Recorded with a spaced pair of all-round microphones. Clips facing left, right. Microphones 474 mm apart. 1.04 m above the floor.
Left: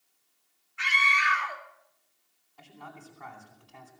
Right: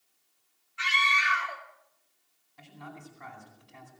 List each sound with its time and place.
0.8 s a scream: 60° right (ahead or behind), 3 m
2.6 s a man speaking: 45° right (ahead or behind), 9.5 m